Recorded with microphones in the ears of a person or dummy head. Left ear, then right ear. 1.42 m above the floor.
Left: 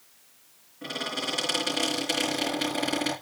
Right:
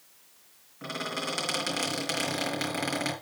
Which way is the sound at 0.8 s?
45° right (ahead or behind).